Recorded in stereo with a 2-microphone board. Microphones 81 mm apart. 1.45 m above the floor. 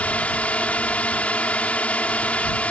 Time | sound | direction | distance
0.0 | a drone | 15° left (ahead or behind) | ?